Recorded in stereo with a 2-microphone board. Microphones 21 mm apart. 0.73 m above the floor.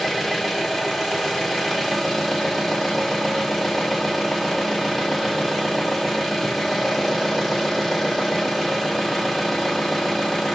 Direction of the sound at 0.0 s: 15° left (ahead or behind).